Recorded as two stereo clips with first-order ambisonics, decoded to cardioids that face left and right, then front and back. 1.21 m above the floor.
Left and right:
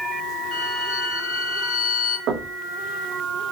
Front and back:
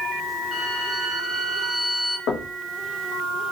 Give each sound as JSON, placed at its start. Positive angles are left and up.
{"t": 0.5, "sound": "a violin", "azimuth_deg": 60, "distance_m": 2.5}
{"t": 2.3, "sound": "knocking", "azimuth_deg": -45, "distance_m": 0.9}